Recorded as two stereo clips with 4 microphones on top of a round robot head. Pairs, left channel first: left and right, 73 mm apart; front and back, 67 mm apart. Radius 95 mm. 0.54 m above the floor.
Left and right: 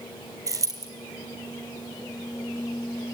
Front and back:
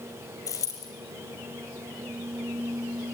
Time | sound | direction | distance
0.5 | a dropped coin | 45° right | 4.5 m